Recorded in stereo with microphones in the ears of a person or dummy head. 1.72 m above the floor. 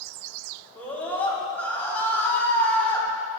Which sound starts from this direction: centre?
A scream, at 0.8 s.